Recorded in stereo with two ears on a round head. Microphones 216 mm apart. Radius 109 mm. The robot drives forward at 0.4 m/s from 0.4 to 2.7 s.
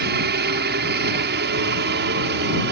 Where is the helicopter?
40° right (ahead or behind).